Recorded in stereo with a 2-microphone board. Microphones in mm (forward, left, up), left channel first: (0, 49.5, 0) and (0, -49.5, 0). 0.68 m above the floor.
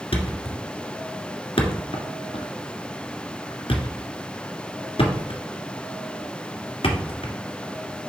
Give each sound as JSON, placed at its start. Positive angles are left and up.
{"t": 0.1, "sound": "a thud", "side_deg": 70, "distance_m": 1.5}